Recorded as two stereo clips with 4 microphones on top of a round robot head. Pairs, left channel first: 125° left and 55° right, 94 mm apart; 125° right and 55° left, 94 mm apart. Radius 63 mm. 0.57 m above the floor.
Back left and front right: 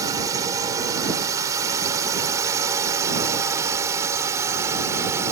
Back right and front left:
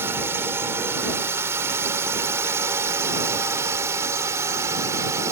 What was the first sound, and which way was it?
A drone, 5° right.